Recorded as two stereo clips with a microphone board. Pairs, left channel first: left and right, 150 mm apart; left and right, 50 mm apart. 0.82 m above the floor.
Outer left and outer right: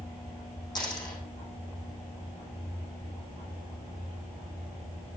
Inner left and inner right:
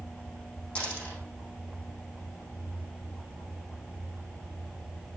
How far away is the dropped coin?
About 4 m.